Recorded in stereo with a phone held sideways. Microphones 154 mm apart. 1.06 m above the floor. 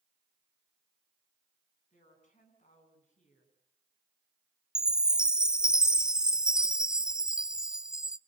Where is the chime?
5° right (ahead or behind), 0.5 m.